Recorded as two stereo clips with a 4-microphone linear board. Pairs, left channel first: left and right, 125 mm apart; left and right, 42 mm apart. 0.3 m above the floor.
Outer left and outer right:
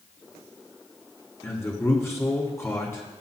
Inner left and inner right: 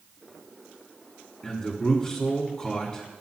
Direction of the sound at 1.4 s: 20° left (ahead or behind).